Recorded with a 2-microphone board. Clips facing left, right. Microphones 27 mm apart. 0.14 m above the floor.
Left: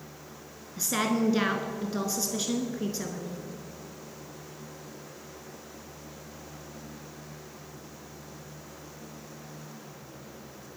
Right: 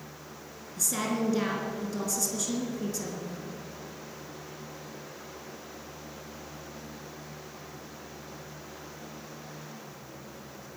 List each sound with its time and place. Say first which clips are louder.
0.8 s a woman speaking: left 3 dB; 35° left (ahead or behind), 1.5 m